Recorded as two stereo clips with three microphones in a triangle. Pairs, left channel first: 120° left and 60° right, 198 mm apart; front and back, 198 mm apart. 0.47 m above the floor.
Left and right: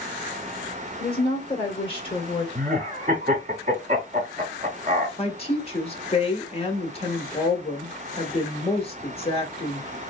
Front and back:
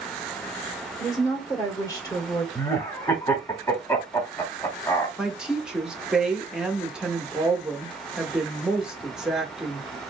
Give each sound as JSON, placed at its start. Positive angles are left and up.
{"t": 1.0, "sound": "a woman speaking", "azimuth_deg": 70, "distance_m": 1.7}
{"t": 2.5, "sound": "laughter", "azimuth_deg": -60, "distance_m": 1.1}
{"t": 5.2, "sound": "a woman speaking", "azimuth_deg": 95, "distance_m": 1.0}